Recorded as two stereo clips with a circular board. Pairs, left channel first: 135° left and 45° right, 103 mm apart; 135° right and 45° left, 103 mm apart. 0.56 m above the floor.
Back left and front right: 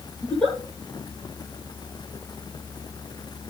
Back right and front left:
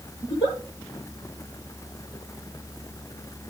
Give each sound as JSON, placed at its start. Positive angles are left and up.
{"t": 0.2, "sound": "a giggle", "azimuth_deg": -150, "distance_m": 6.5}